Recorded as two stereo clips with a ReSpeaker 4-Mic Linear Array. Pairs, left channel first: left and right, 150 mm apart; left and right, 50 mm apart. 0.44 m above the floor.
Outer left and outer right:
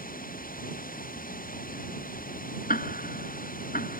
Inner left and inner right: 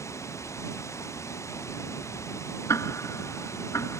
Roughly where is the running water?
Left.